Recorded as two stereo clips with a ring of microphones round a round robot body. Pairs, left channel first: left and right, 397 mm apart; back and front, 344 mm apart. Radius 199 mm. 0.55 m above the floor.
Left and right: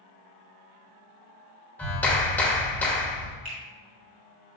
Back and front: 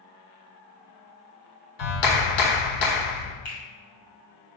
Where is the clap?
175° left, 1.5 m.